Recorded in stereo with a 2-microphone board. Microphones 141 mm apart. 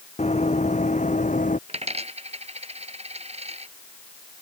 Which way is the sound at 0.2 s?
50° left (ahead or behind).